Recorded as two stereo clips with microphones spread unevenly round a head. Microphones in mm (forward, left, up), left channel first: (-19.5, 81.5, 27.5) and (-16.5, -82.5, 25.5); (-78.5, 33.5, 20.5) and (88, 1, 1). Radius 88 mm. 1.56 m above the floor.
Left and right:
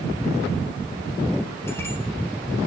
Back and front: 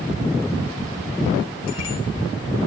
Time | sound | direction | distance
1.7 | a bicycle bell | 165° left | 6.5 m